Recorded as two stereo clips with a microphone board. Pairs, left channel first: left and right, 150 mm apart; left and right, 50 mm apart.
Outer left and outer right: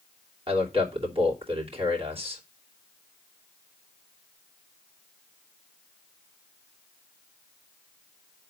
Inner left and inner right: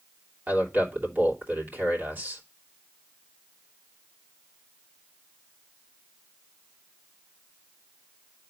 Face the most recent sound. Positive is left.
turn(degrees=-40)  # may be behind; listen again after turning